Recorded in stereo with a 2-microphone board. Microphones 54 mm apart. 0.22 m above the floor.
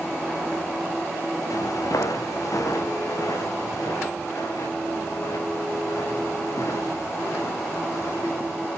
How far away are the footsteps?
About 2.5 m.